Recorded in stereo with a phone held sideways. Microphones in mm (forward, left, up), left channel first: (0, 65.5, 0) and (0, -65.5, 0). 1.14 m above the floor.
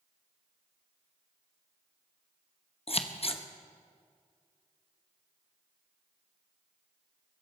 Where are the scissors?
45° left (ahead or behind), 0.9 m.